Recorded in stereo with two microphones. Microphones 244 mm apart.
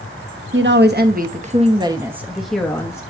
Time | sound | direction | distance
0.5 | a woman speaking | 55° right (ahead or behind) | 1.1 m